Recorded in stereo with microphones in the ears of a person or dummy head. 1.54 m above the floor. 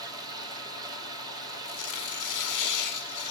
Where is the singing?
No singing in this recording.